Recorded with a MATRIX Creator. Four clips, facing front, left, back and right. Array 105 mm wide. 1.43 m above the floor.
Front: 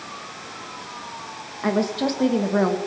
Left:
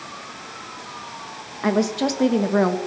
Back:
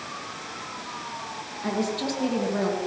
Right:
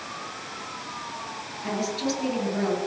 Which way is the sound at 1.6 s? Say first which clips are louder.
Left 8 dB, front 5 dB; 60° left.